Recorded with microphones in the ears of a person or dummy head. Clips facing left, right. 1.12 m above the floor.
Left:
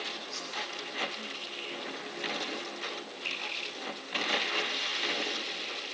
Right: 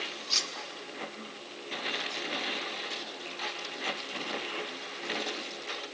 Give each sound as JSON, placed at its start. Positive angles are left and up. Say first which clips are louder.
{"t": 0.3, "sound": "cutlery clinking", "louder": "even", "side_deg": -80, "distance_m": 0.9}